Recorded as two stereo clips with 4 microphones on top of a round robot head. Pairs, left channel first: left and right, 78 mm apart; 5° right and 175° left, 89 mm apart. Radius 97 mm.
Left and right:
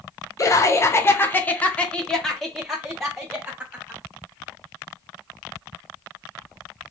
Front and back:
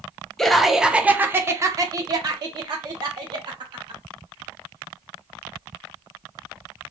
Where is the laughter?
75° left, 1.0 m; by 4.0 s 165° right, 1.8 m.